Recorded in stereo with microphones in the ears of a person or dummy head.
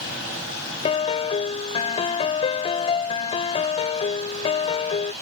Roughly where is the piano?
Left.